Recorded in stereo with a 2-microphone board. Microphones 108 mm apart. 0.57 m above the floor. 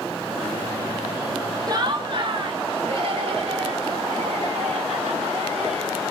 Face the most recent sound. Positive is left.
turn(degrees=-75)  # may be behind; listen again after turning